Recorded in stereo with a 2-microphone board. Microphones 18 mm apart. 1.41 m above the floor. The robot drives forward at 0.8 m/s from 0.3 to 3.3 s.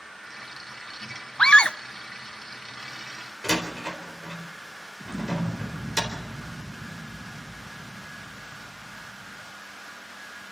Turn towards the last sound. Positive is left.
turn(degrees=20)  # may be behind; listen again after turning